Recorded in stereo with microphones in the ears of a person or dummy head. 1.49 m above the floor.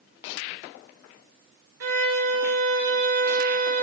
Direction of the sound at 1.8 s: 75° right (ahead or behind).